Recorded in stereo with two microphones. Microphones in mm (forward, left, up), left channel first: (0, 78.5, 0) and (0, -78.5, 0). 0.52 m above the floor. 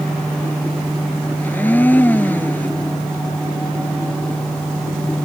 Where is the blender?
10° left (ahead or behind).